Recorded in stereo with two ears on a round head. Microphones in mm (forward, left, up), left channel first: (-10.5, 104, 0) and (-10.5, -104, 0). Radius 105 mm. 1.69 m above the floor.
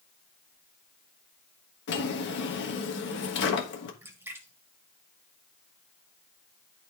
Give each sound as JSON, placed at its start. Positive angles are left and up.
{"t": 1.9, "sound": "a drawer", "side_deg": 50, "distance_m": 1.4}
{"t": 4.0, "sound": "a splash", "side_deg": -10, "distance_m": 1.6}